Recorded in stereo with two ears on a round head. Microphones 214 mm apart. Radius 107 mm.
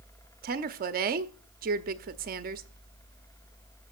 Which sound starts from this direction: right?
A woman speaking, at 0.4 s.